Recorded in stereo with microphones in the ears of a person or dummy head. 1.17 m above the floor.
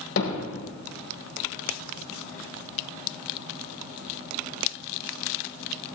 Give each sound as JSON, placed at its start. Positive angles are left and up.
{"t": 0.2, "sound": "hammering", "side_deg": 80, "distance_m": 4.0}